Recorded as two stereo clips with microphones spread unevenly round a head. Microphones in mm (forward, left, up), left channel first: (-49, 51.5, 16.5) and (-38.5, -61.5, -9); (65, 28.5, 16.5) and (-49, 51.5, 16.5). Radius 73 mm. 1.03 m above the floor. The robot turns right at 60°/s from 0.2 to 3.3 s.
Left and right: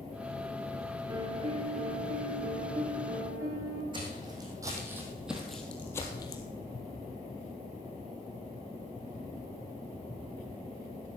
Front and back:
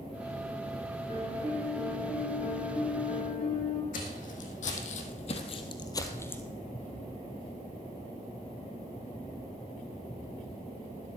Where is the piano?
140° right, 2.5 m; by 3.8 s 10° right, 2.5 m.